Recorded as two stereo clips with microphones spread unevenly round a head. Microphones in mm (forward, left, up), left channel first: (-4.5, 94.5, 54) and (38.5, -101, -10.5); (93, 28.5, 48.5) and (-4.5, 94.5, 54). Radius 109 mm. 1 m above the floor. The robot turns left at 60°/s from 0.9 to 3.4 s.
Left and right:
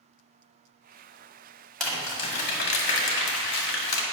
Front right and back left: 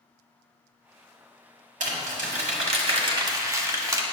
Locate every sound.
1.8 s crumpling: 175° right, 1.3 m; by 4.0 s 90° left, 1.3 m